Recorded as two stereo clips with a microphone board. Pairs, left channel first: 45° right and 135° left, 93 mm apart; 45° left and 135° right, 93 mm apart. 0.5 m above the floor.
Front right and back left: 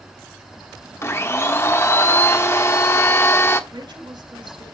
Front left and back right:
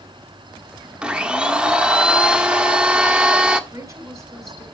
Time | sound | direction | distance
1.0 | a blender | 65° right | 1.3 m
3.7 | a woman speaking | 170° left | 5 m